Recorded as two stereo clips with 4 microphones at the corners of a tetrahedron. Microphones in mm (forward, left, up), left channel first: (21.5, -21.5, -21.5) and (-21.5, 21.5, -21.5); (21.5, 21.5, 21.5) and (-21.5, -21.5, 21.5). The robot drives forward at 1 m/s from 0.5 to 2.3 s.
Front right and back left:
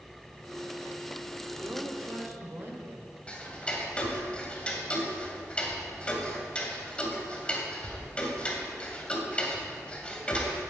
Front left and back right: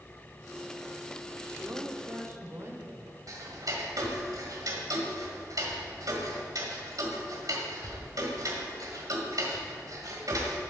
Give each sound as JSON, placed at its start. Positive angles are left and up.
{"t": 1.6, "sound": "a woman speaking", "azimuth_deg": -175, "distance_m": 1.8}
{"t": 3.3, "sound": "ticking", "azimuth_deg": -115, "distance_m": 2.0}